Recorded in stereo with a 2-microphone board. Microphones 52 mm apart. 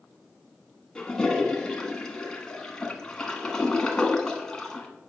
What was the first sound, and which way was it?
A toilet flushing, 15° left (ahead or behind).